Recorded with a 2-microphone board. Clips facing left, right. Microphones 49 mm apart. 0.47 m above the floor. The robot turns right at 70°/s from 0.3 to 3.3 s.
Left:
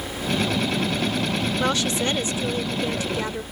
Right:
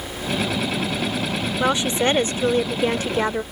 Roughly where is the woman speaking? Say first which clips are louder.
Right 6 dB; behind.